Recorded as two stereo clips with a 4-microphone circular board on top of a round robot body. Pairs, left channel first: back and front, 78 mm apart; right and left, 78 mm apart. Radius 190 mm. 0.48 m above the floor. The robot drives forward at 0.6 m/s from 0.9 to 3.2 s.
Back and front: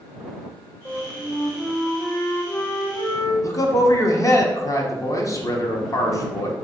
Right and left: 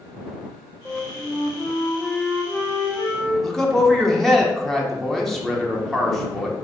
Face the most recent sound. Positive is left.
turn(degrees=-175)